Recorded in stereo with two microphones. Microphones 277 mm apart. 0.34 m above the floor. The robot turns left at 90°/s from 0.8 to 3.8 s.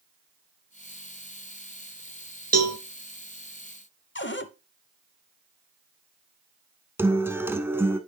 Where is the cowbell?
60° right (ahead or behind), 0.8 m; by 2.8 s 65° right (ahead or behind), 0.8 m.